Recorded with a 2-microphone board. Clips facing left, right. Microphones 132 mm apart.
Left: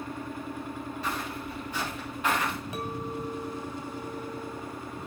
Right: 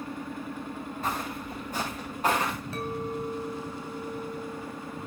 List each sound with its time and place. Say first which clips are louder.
1.0 s footsteps: right 3 dB; 50° right (ahead or behind), 8 m; by 2.5 s 35° right (ahead or behind), 7.5 m
2.7 s a clink: right 2 dB; 15° left (ahead or behind), 2.5 m